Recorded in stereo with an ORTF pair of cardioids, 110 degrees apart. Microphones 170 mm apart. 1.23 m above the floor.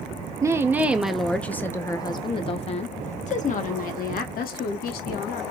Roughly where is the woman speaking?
Ahead.